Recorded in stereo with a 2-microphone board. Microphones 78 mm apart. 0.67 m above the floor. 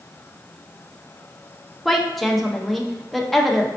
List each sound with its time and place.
1.9 s a woman speaking: centre (ahead or behind), 0.5 m